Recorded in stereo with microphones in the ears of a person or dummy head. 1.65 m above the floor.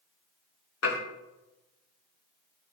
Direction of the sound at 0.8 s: 70° left (ahead or behind).